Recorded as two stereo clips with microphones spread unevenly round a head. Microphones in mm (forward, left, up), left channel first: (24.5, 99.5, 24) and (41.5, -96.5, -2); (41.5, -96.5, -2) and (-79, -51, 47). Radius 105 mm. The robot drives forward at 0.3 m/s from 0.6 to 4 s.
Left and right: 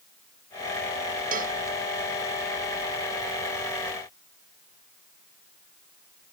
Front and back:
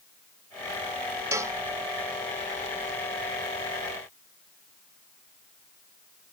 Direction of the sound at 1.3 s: 140° right.